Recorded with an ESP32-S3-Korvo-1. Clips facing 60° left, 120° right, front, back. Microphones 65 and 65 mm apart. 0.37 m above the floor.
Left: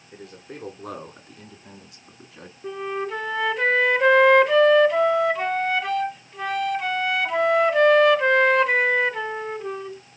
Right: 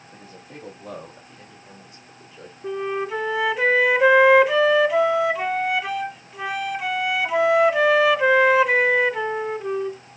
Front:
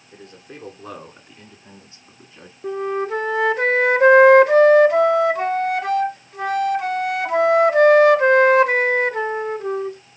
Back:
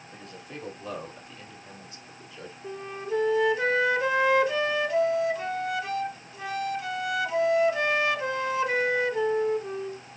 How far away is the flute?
About 0.5 m.